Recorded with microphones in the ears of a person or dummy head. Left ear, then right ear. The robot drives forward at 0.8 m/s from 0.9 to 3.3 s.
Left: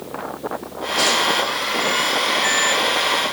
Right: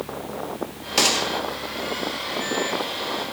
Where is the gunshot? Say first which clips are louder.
Left 2 dB; 85° right, 1.2 m.